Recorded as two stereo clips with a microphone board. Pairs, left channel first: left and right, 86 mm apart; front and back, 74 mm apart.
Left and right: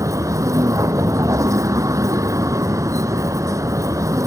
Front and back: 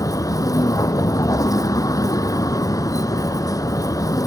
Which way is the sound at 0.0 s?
40° right.